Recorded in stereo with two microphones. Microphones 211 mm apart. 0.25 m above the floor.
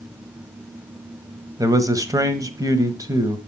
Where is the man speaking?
15° right (ahead or behind), 1.2 m.